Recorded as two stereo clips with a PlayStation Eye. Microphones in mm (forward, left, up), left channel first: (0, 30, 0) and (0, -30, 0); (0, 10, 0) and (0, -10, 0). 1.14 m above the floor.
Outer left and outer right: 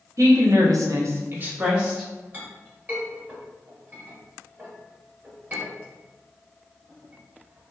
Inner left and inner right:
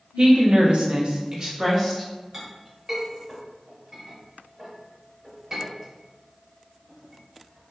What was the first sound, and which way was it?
A woman speaking, 55° right (ahead or behind).